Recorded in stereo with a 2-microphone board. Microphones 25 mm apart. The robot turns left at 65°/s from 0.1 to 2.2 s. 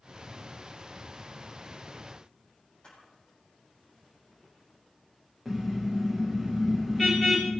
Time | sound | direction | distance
2.8 | a camera shutter | 35° left (ahead or behind) | 6 m
5.5 | a car horn | centre (ahead or behind) | 5 m